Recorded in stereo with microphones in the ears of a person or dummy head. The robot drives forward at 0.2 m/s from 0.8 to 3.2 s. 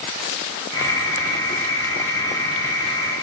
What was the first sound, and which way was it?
Only background noise.